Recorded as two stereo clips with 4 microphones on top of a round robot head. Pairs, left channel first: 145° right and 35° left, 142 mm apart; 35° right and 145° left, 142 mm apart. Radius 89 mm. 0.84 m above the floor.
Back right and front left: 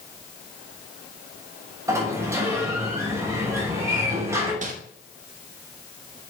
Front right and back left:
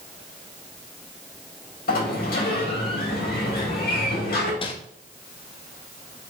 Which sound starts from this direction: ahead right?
A sliding door, at 1.9 s.